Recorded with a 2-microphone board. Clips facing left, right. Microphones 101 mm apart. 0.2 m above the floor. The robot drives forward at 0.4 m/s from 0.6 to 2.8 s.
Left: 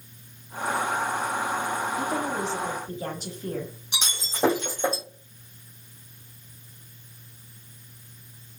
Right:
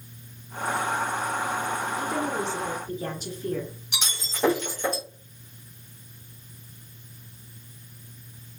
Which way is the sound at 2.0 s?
40° left (ahead or behind).